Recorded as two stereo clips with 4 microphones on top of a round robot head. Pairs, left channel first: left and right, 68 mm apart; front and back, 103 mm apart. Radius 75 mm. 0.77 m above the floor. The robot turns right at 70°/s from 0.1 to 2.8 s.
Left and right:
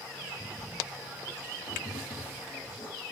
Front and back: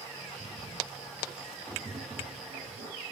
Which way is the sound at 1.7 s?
90° left.